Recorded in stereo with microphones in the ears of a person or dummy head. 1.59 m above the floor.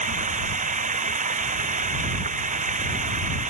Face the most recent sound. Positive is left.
turn(degrees=-35)  # may be behind; listen again after turning